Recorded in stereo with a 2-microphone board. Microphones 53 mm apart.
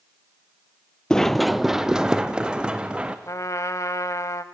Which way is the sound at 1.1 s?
15° left (ahead or behind).